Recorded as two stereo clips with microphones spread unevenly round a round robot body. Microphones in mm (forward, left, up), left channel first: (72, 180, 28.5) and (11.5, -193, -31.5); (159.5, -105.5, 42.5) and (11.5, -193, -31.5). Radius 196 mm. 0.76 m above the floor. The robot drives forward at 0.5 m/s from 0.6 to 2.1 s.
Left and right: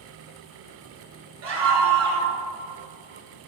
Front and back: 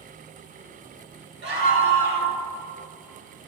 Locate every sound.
1.4 s a scream: 160° right, 2.5 m